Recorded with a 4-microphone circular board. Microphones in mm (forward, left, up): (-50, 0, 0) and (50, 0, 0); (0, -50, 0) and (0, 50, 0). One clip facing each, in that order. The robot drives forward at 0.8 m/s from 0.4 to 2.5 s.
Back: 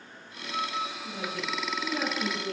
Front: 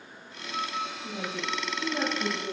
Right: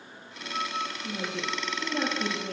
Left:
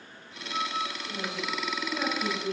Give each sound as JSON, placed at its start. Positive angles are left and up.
{"t": 1.0, "sound": "a woman speaking", "azimuth_deg": -50, "distance_m": 3.0}